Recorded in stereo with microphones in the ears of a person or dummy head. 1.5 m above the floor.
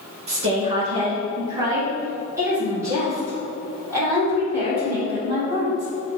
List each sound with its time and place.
0.3 s a woman speaking: 30° right (ahead or behind), 1.4 m; by 5.9 s 15° right (ahead or behind), 5 m